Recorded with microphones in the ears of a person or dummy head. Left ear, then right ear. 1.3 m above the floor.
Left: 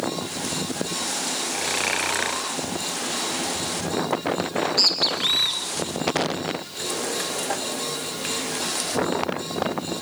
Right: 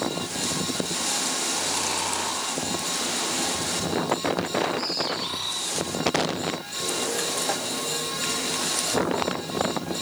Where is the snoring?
50° left (ahead or behind), 3.5 m.